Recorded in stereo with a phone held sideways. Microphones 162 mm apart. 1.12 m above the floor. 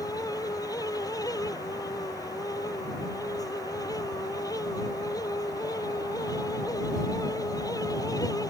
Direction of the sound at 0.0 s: 20° left (ahead or behind).